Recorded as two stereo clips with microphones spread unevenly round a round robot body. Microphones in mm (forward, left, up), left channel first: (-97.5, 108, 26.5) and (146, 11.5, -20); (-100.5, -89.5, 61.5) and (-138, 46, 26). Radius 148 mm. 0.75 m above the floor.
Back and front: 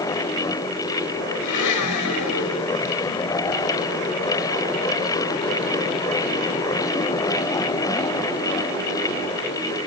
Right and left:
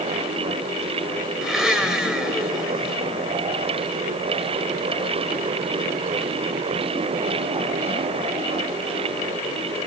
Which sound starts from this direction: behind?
A blender, at 1.4 s.